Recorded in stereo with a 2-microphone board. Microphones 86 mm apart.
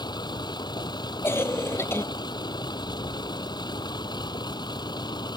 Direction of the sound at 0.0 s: 60° left (ahead or behind).